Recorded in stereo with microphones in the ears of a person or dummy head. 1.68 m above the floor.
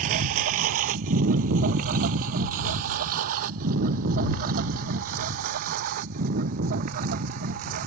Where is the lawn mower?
50° right (ahead or behind); by 7.9 s 55° right (ahead or behind).